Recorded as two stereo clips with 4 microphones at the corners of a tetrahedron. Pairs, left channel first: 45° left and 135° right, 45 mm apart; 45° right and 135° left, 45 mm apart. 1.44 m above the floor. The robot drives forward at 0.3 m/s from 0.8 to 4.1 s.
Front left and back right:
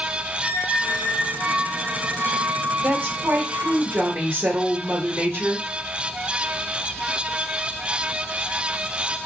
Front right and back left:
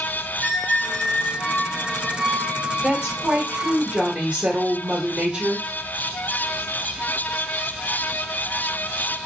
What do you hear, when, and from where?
0.4 s a squeak: 155° right, 1.4 m; by 3.8 s 170° right, 1.9 m
2.8 s a woman speaking: 170° right, 1.0 m